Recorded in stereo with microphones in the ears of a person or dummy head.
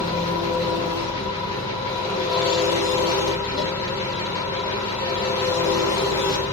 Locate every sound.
0.0 s an engine running: 45° left (ahead or behind), 1.4 m